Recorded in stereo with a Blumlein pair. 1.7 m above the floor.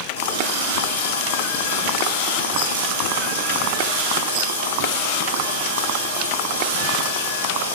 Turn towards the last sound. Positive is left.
turn(degrees=65)